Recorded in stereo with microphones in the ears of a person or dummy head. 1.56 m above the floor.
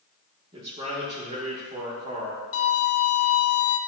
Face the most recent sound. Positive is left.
turn(degrees=70)  # may be behind; listen again after turning